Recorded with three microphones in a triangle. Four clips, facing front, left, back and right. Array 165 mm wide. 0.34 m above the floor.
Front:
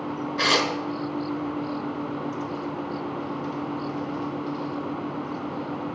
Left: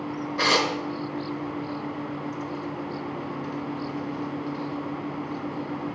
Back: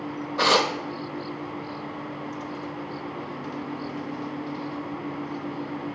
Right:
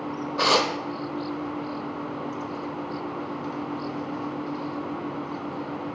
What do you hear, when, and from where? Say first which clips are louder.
0.4 s tearing paper: right 2 dB, back 3 dB; 145° right, 1.0 m